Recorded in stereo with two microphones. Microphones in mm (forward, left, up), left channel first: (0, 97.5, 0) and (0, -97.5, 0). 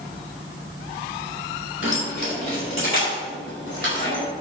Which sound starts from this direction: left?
Keys jangling, at 1.8 s.